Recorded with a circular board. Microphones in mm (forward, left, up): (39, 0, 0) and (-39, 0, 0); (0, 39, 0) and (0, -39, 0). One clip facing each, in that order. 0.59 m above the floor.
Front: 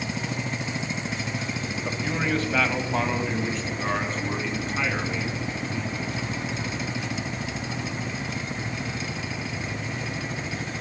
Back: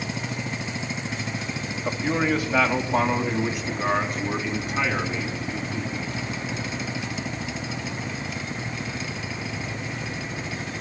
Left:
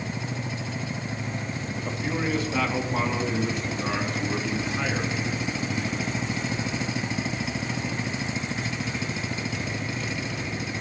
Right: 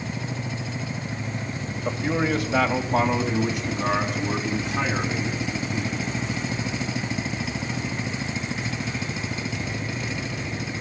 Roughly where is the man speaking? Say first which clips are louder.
Back 5 dB, right 5 dB; right.